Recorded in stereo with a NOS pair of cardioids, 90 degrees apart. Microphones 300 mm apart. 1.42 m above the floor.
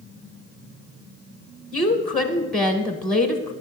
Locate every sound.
1.7 s a woman speaking: straight ahead, 1.0 m